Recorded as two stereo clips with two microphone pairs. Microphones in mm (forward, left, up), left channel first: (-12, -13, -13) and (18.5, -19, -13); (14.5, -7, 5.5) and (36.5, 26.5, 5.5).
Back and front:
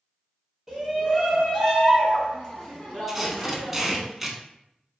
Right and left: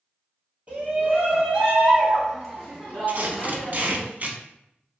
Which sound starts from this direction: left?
A shout, at 0.7 s.